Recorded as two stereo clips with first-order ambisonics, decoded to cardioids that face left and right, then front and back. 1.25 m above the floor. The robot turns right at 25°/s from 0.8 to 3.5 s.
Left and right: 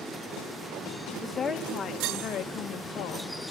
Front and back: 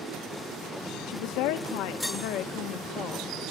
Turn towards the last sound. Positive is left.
turn(degrees=65)